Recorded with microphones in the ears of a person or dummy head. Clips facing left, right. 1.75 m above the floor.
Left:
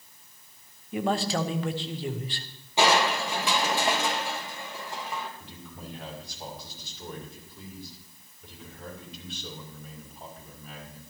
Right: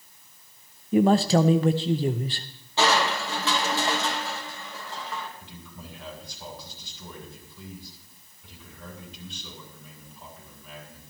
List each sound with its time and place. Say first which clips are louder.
0.9 s a man speaking: right 8 dB; 25° right (ahead or behind), 0.5 m
2.8 s crushing: left 1 dB; 10° left (ahead or behind), 1.3 m
5.4 s a man speaking: left 1 dB; 45° left (ahead or behind), 6 m